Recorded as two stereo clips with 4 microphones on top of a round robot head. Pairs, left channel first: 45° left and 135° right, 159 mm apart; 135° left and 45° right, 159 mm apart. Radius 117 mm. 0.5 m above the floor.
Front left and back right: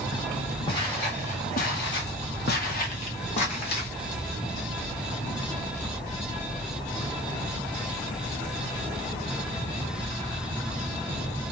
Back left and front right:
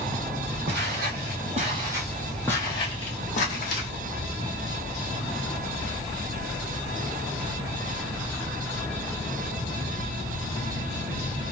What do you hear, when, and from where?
0.7 s footsteps: 20° right, 1.0 m; by 3.9 s 100° left, 1.3 m